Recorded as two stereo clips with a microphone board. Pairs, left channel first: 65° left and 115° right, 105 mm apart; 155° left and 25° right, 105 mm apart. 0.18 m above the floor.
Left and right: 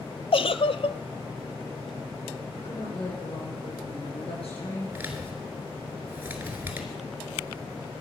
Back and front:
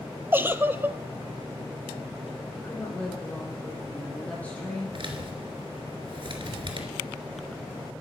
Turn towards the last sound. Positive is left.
turn(degrees=-45)